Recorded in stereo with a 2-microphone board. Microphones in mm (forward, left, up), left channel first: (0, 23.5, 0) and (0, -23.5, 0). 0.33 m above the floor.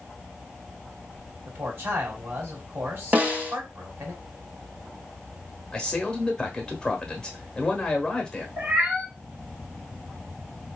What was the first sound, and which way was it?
A man speaking, 55° right (ahead or behind).